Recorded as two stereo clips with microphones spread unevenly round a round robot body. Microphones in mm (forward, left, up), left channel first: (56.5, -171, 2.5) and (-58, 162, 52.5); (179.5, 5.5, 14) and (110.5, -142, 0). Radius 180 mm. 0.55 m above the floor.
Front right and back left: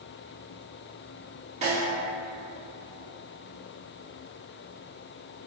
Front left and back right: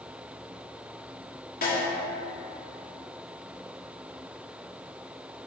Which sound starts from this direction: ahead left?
A snare drum, at 1.6 s.